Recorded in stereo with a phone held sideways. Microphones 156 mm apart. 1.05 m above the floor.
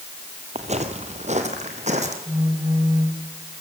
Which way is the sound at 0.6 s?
45° right (ahead or behind).